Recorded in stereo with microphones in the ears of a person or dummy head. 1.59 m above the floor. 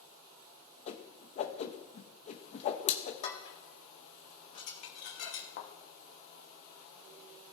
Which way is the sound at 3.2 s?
45° left (ahead or behind).